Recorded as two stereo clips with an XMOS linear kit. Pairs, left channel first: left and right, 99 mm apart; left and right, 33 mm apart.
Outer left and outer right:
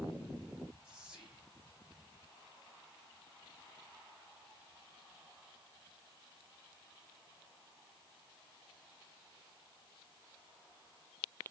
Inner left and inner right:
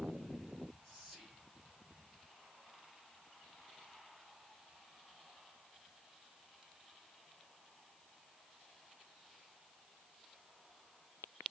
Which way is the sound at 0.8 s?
10° right (ahead or behind).